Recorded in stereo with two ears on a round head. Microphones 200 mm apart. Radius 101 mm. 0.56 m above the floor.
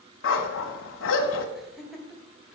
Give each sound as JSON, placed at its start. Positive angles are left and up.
{"t": 0.2, "sound": "a dog barking", "side_deg": 65, "distance_m": 1.2}
{"t": 1.6, "sound": "laughter", "side_deg": 0, "distance_m": 2.0}